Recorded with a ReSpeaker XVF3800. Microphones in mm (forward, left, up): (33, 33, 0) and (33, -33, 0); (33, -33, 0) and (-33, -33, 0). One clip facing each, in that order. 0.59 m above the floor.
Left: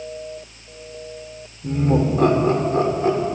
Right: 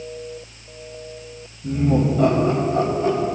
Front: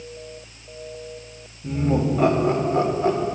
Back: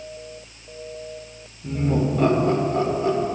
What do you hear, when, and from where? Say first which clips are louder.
1.6 s laughter: even, front 1 dB; 90° left, 2.5 m; by 3.2 s 50° left, 2 m